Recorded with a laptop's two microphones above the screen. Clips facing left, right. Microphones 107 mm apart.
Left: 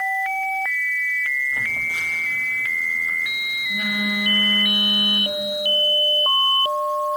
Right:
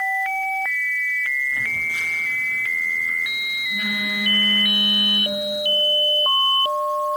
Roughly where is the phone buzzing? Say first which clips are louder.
Even; left.